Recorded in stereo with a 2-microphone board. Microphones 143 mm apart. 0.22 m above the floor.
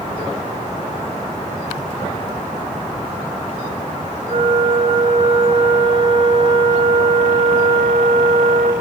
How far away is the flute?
About 1.0 m.